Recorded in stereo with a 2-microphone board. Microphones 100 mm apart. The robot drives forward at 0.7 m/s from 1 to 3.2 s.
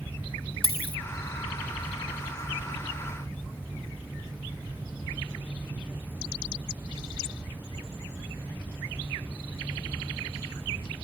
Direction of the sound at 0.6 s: 65° left (ahead or behind).